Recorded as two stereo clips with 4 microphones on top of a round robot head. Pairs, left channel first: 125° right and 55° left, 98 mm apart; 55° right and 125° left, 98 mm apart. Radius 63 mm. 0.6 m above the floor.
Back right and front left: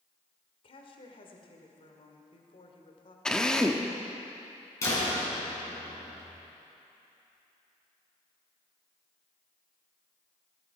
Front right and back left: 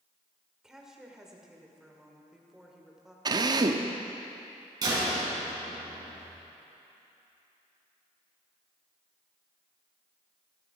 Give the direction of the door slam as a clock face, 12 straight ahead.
6 o'clock.